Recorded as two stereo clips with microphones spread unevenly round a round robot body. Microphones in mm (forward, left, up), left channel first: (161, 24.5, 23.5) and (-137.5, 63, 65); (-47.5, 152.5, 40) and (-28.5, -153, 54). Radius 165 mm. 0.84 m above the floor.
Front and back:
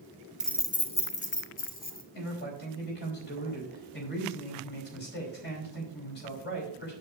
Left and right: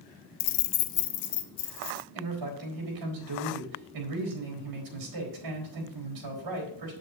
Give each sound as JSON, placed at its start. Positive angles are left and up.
{"t": 0.4, "sound": "keys jangling", "azimuth_deg": 80, "distance_m": 0.5}
{"t": 2.1, "sound": "a man speaking", "azimuth_deg": -65, "distance_m": 4.5}